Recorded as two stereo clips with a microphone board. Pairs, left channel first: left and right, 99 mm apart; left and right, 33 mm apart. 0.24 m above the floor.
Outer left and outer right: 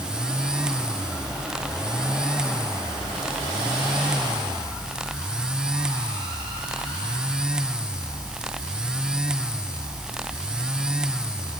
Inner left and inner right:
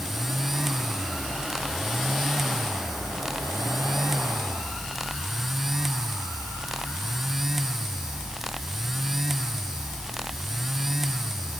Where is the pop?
I don't hear a pop.